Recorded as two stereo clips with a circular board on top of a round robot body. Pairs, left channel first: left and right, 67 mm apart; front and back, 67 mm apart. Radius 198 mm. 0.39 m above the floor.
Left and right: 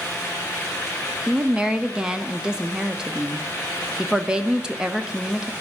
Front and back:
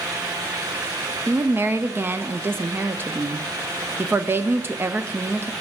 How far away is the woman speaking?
About 0.8 m.